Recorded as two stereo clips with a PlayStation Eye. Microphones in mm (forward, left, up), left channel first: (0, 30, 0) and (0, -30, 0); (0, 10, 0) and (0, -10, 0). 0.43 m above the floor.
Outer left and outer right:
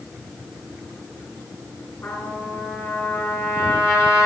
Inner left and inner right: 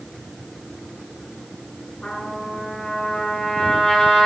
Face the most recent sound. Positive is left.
turn(degrees=45)  # may be behind; listen again after turning